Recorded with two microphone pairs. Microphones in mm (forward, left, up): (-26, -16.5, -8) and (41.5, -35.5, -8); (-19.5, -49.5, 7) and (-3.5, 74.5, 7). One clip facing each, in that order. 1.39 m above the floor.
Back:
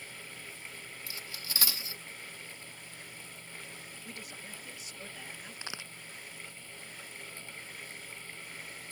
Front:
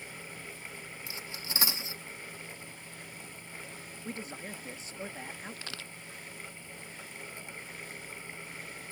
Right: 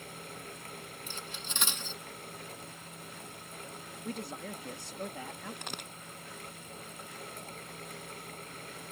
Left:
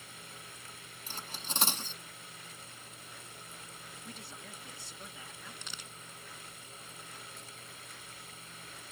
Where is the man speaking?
70° right.